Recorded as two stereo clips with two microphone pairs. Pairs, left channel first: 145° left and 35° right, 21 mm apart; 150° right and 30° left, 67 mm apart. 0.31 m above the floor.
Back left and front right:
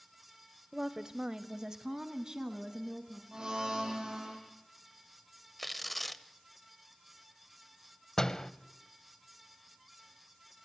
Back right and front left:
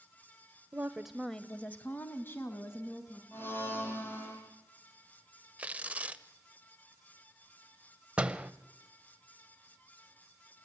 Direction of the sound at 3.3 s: 90° right.